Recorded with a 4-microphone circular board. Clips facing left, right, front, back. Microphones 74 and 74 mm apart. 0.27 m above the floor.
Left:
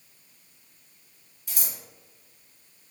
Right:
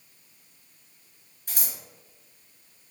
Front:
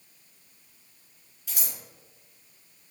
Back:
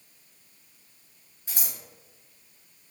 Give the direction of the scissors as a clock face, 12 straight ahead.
4 o'clock.